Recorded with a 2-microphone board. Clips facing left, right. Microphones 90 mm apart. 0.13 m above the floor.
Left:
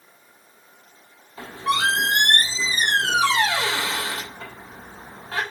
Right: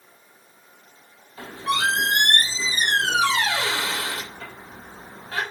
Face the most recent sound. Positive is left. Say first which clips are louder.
# left 2 dB
turn(degrees=30)  # may be behind; listen again after turning